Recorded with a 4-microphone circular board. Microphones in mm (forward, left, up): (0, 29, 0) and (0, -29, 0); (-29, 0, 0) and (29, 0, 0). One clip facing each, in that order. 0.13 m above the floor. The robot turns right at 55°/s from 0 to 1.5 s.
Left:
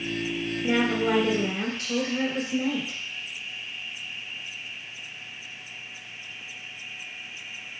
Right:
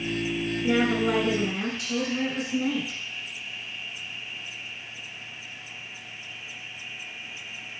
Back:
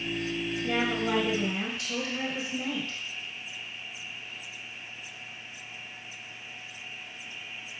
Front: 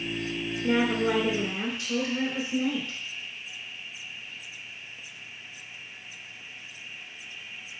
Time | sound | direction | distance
0.6 | a woman speaking | straight ahead | 1.9 m